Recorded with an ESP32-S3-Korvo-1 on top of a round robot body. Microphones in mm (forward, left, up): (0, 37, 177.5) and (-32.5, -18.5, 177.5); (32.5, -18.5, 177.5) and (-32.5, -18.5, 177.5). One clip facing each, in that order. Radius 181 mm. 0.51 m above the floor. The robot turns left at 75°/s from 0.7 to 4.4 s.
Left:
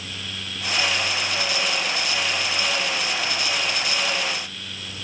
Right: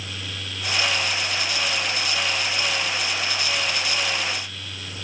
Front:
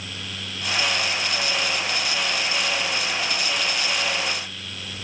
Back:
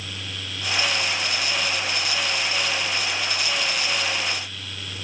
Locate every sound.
Only background noise.